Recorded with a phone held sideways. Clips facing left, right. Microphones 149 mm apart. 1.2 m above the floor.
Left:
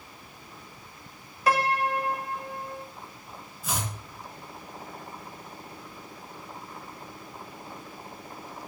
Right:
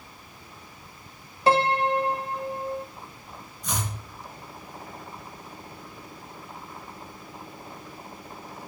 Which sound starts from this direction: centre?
Chopping, at 3.6 s.